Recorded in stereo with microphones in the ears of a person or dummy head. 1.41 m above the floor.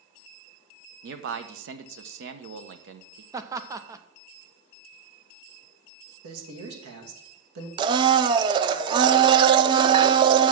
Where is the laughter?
20° right (ahead or behind), 0.6 m.